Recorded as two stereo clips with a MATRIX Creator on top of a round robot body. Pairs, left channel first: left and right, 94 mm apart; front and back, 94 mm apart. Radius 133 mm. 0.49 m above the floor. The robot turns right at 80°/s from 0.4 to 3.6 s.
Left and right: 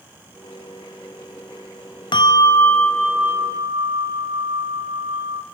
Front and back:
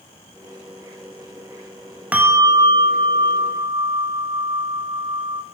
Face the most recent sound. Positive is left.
turn(degrees=-135)